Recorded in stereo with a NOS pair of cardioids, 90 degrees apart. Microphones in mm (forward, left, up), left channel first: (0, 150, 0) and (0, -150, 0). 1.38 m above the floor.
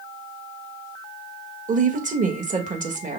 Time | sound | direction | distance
1.7 | a woman speaking | 25° right | 1.4 m